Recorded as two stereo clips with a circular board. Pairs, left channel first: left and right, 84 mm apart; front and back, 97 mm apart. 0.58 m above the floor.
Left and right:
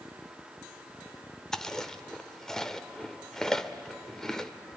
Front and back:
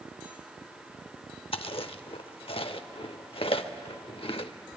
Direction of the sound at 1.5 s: 5° left.